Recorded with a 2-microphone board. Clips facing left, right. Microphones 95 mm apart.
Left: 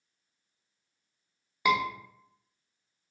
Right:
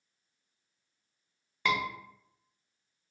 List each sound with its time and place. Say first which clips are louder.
1.6 s a scream: left 5 dB; 10° left (ahead or behind), 0.6 m